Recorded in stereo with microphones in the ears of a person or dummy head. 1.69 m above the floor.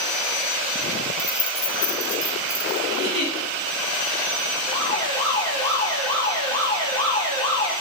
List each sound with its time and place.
1.2 s keys jangling: 20° left (ahead or behind), 4 m
2.9 s a giggle: 65° left (ahead or behind), 8.5 m
4.7 s an alarm: 25° left (ahead or behind), 4.5 m